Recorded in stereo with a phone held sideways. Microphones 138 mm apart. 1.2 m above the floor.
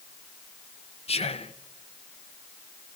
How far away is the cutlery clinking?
I don't hear cutlery clinking.